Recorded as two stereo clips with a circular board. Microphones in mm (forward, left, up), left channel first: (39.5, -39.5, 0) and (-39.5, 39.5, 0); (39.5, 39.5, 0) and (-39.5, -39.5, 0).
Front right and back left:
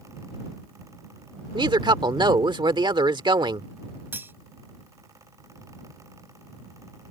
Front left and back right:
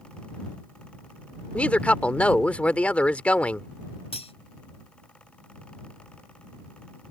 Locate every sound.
1.5 s a woman speaking: 120° left
4.1 s cutlery clinking: 65° left